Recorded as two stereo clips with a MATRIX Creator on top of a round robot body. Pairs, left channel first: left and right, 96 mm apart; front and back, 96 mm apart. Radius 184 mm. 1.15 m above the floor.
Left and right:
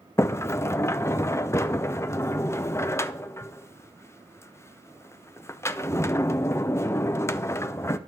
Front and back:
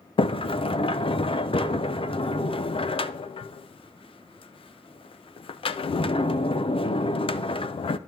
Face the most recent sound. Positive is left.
turn(degrees=25)